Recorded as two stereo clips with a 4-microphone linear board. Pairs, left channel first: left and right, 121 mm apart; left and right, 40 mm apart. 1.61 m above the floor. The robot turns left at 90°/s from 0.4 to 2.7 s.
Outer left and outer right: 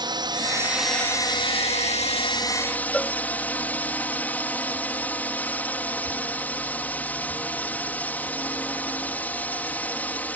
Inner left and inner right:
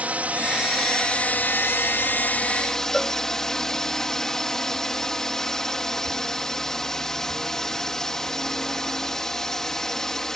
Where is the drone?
140° right; by 10.4 s 15° left.